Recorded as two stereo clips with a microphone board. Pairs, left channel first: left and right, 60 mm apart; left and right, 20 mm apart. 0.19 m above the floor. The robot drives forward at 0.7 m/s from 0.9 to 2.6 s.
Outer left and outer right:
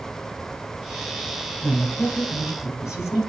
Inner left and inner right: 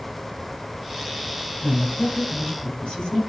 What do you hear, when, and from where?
1.6 s a woman speaking: 60° left (ahead or behind), 4.5 m; by 3.2 s 55° left (ahead or behind), 4.5 m